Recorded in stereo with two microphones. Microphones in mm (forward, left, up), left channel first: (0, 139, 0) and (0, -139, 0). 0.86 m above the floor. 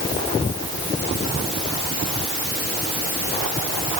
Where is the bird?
I don't hear a bird.